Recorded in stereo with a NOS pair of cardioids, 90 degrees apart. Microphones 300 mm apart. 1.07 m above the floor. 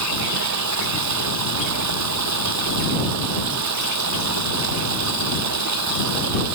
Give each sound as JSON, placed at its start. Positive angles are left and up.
{"t": 0.0, "sound": "running water", "azimuth_deg": -65}